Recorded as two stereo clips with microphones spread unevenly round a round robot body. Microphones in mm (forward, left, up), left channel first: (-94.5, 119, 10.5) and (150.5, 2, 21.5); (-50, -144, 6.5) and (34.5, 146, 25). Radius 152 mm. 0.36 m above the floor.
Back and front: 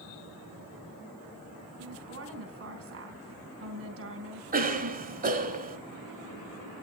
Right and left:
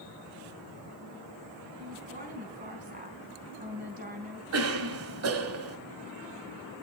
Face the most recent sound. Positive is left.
turn(degrees=30)